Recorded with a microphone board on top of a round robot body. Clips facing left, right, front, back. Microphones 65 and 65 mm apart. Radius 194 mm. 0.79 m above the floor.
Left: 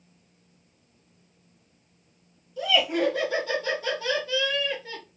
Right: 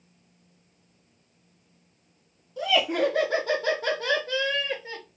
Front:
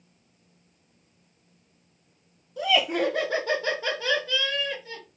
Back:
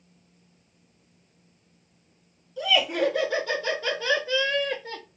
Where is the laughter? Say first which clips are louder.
Even, even; 35° right, 2 m; by 5.0 s 165° right, 1.2 m.